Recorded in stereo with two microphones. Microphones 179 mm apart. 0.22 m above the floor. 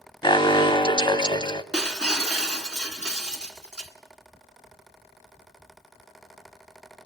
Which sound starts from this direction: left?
An alarm, at 0.2 s.